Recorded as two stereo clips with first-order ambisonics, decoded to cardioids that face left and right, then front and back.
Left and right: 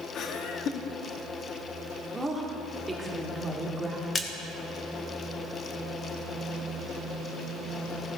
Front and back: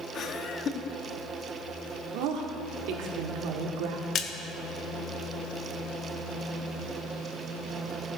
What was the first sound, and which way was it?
Laughter, 50° left.